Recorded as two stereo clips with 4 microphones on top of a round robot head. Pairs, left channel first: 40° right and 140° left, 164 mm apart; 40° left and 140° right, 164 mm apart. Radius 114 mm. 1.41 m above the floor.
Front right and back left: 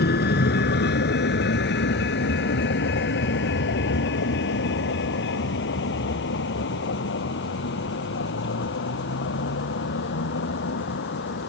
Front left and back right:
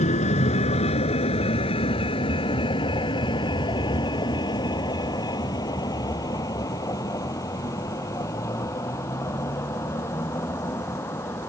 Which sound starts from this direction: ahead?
A vehicle, at 0.0 s.